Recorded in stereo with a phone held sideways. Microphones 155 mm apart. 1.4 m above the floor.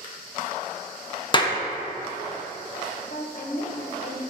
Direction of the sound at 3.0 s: 70° left (ahead or behind).